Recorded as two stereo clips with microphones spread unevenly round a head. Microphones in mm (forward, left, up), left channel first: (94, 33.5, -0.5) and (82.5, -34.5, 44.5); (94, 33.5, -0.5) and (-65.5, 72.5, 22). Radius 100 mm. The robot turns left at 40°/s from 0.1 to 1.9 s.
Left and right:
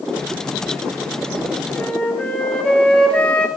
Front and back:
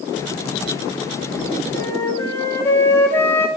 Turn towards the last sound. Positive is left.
turn(degrees=-90)